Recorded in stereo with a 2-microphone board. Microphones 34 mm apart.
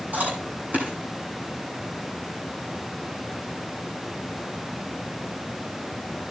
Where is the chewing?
50° right (ahead or behind), 5.5 m.